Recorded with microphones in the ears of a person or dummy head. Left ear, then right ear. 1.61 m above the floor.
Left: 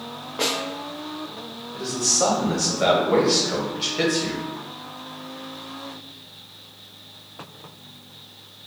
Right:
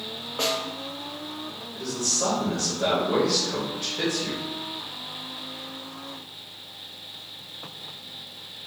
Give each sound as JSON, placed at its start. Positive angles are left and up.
{"t": 0.4, "sound": "a snare drum", "side_deg": -5, "distance_m": 0.5}
{"t": 1.7, "sound": "a man speaking", "side_deg": 25, "distance_m": 0.7}